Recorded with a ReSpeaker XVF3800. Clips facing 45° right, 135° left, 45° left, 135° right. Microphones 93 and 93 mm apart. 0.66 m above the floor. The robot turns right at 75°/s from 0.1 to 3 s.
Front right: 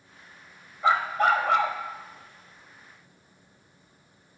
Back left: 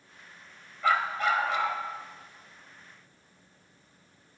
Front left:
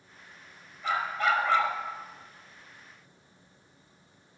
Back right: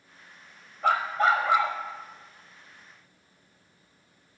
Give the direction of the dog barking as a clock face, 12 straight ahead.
4 o'clock.